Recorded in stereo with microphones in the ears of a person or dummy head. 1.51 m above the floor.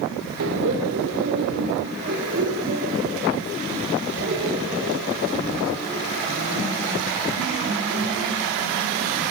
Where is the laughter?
65° right (ahead or behind), 2 m; by 9.3 s 50° right (ahead or behind), 10 m.